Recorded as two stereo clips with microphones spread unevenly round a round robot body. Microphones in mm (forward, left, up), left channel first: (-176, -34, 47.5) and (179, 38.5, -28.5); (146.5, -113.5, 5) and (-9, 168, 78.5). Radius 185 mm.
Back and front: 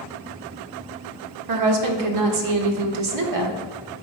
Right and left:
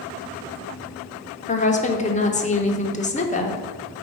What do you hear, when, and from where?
1.5 s a woman speaking: straight ahead, 1.2 m